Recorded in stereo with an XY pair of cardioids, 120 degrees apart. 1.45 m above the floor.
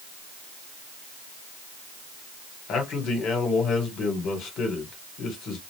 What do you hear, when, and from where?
2.7 s a man speaking: 65° left, 1.6 m